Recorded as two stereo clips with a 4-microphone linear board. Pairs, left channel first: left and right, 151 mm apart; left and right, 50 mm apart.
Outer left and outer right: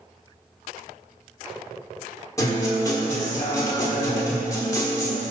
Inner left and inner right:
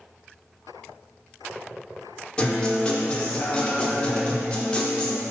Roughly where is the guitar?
Left.